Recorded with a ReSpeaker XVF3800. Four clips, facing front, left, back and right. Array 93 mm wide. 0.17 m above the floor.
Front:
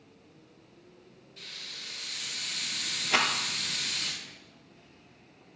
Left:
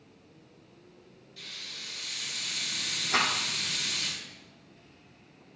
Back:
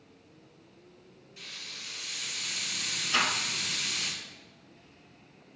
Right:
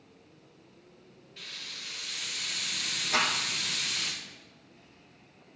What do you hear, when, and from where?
1.4 s a hiss: 110° right, 1.4 m
3.1 s a rattle: 10° right, 0.7 m